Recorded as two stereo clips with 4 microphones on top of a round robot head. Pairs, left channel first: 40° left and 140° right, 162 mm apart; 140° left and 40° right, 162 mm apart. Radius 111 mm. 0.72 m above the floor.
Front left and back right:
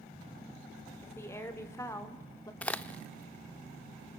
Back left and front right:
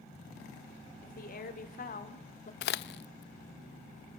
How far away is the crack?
About 0.5 m.